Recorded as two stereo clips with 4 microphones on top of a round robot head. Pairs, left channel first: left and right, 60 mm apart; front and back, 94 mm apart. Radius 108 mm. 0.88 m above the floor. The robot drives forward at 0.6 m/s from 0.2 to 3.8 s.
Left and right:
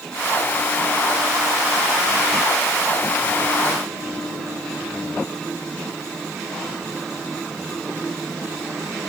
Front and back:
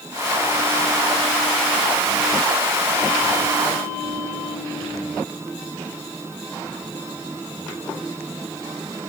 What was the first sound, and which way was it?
Only background noise.